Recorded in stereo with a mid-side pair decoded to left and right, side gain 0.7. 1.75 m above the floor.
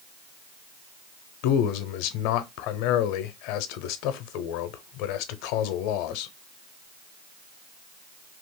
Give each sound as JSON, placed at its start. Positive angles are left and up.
{"t": 1.4, "sound": "a man speaking", "azimuth_deg": 70, "distance_m": 0.7}